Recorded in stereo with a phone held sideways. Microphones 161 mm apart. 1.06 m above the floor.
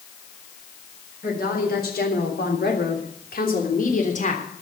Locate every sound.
1.2 s a woman speaking: 65° left (ahead or behind), 4 m; by 4.4 s 45° left (ahead or behind), 3.5 m